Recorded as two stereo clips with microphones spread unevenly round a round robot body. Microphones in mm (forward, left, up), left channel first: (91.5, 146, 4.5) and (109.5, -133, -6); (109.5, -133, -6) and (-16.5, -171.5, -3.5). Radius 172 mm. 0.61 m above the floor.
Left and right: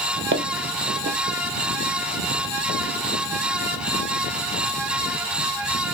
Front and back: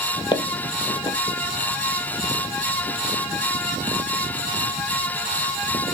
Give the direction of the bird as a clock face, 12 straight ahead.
No bird in this recording.